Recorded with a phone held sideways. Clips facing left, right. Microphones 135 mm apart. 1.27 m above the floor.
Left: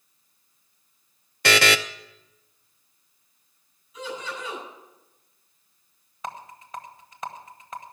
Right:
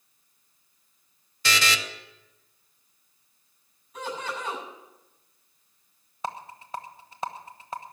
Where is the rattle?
30° right (ahead or behind), 1.1 m.